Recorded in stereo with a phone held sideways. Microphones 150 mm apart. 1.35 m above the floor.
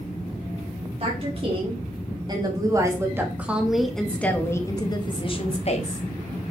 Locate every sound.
1.0 s a woman speaking: 40° right (ahead or behind), 4 m; by 6.1 s 50° left (ahead or behind), 2.5 m